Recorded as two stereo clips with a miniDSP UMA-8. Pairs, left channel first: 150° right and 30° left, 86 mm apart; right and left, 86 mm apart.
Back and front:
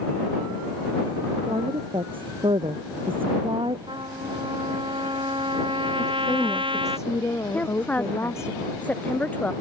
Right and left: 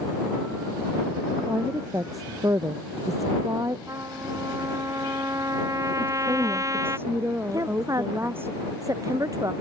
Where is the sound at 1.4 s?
40° left.